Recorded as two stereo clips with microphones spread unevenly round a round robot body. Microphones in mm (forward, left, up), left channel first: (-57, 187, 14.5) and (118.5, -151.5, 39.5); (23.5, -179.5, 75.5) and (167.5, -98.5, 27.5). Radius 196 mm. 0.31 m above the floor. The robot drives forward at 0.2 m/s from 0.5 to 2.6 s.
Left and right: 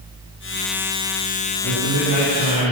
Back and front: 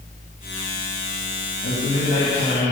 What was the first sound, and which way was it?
A man speaking, 135° right.